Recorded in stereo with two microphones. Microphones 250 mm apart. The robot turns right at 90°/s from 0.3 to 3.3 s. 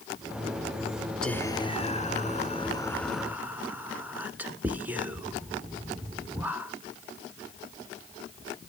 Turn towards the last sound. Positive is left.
turn(degrees=-5)  # may be behind; listen again after turning